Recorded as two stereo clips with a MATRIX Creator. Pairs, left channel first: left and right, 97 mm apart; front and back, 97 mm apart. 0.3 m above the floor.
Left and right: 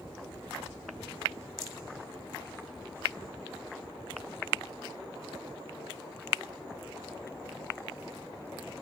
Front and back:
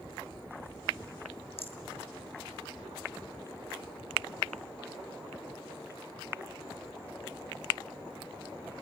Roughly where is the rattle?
Ahead.